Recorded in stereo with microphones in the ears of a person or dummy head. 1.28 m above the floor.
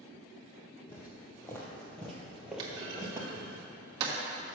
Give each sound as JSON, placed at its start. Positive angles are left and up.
{"t": 0.9, "sound": "footsteps", "side_deg": 20, "distance_m": 2.5}
{"t": 2.6, "sound": "a clunk", "side_deg": -30, "distance_m": 1.7}